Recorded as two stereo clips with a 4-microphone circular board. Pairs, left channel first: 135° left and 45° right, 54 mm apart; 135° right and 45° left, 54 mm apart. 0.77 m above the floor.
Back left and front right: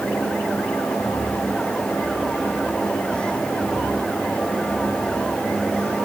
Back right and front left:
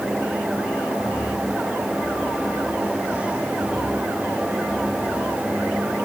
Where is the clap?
I don't hear a clap.